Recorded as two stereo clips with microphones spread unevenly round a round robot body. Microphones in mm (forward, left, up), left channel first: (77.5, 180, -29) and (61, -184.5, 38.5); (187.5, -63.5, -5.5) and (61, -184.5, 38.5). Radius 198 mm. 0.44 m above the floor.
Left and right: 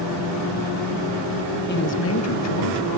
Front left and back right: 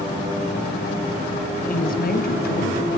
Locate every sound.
1.7 s a woman speaking: 35° left, 2.5 m; by 3.0 s 65° left, 3.5 m